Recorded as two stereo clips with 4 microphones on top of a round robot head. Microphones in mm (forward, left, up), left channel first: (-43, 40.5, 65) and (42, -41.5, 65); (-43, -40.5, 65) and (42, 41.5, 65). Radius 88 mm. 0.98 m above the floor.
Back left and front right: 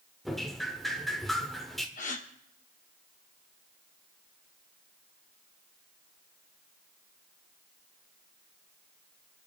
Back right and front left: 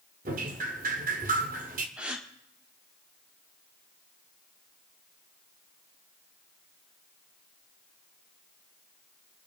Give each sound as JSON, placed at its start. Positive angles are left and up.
{"t": 0.2, "sound": "dripping", "azimuth_deg": 50, "distance_m": 1.2}
{"t": 2.0, "sound": "a gasp", "azimuth_deg": 125, "distance_m": 1.6}